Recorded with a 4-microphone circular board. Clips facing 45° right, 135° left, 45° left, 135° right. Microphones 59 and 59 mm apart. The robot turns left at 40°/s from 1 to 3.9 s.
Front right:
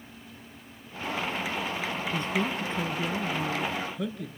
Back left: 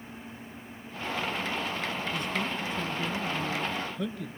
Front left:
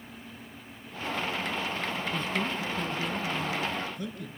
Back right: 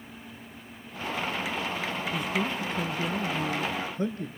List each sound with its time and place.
2.1 s a man speaking: 55° right, 1.4 m; by 4.3 s 130° right, 1.4 m